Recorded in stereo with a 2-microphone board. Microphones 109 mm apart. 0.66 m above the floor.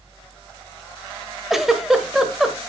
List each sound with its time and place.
1.5 s a giggle: centre (ahead or behind), 1.3 m